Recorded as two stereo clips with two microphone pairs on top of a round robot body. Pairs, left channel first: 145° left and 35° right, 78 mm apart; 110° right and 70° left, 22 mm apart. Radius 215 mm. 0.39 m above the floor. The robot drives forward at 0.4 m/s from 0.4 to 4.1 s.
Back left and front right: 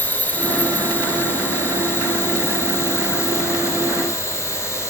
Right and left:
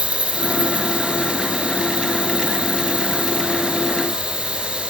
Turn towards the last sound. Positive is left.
turn(degrees=90)